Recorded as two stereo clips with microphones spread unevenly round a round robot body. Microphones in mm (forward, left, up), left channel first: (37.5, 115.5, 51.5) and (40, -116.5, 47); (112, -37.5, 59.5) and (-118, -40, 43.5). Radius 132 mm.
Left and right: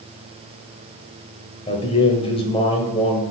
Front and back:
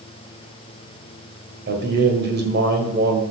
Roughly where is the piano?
No piano in this recording.